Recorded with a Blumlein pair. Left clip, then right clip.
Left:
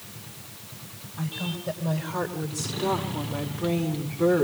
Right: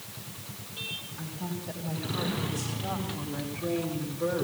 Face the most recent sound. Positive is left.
turn(degrees=60)